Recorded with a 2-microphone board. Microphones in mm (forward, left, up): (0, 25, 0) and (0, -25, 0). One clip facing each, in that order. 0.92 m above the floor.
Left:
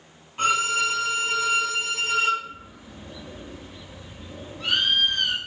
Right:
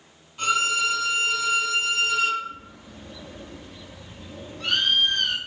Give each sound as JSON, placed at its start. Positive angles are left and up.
{"t": 0.4, "sound": "a violin", "side_deg": 40, "distance_m": 3.5}
{"t": 2.4, "sound": "a bird", "side_deg": 5, "distance_m": 1.4}